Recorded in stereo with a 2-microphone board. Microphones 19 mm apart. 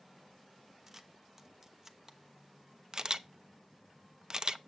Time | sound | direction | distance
0.9 | a camera shutter | 20° right (ahead or behind) | 0.9 m
2.9 | a camera shutter | 40° right (ahead or behind) | 0.5 m